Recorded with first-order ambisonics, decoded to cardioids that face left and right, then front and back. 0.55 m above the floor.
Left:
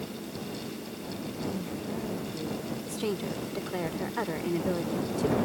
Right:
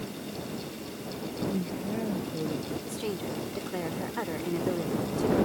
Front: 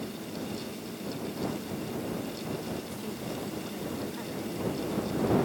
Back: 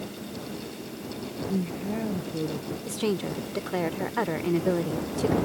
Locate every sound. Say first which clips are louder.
1.5 s a woman speaking: right 2 dB, back 4 dB; 165° right
2.9 s a woman speaking: left 1 dB, back 9 dB; 170° left